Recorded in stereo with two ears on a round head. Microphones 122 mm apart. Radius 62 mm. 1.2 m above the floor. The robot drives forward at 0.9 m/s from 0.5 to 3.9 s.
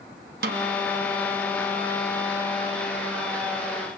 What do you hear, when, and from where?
0.4 s a snare drum: 75° right (ahead or behind), 1.1 m; by 0.7 s 80° right, 1.0 m